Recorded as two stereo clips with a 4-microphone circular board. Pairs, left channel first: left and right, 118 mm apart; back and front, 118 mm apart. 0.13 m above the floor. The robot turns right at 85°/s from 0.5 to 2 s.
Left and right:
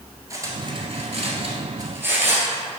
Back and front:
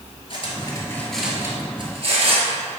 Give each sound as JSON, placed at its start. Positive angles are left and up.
{"t": 0.3, "sound": "cutlery clinking", "azimuth_deg": -150, "distance_m": 1.4}